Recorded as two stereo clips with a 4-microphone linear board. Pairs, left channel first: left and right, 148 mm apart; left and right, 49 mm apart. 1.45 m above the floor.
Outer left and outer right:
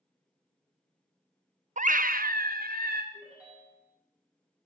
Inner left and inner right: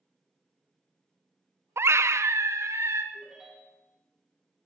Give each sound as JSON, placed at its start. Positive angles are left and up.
{"t": 1.8, "sound": "a scream", "side_deg": -55, "distance_m": 0.6}
{"t": 3.1, "sound": "a ringtone", "side_deg": -10, "distance_m": 7.0}